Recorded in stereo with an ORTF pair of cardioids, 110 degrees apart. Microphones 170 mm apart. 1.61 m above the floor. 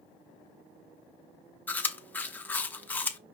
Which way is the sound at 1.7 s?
10° left.